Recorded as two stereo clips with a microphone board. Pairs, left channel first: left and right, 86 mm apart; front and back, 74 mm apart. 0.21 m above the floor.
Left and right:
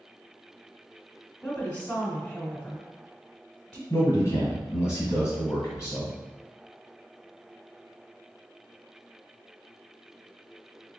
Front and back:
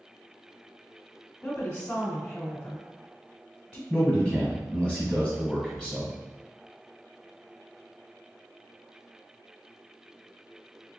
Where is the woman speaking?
35° left, 1.0 m.